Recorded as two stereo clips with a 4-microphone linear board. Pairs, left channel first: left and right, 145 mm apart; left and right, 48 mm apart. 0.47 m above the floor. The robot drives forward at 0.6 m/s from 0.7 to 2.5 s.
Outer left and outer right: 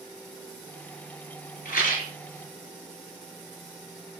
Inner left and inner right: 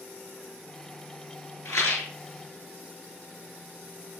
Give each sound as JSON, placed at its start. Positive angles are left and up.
{"t": 1.6, "sound": "a rattle", "side_deg": 85, "distance_m": 2.5}